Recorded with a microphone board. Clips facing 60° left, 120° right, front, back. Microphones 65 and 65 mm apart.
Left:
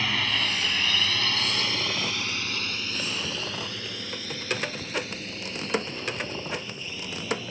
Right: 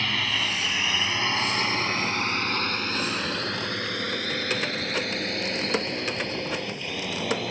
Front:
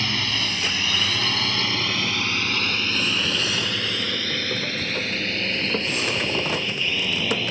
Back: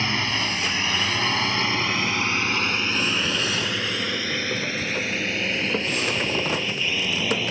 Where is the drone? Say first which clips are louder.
Even, back 2 dB; 145° left; by 7.5 s 95° right.